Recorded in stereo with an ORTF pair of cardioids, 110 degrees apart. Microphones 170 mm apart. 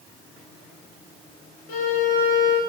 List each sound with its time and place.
1.7 s a violin: 60° left, 0.9 m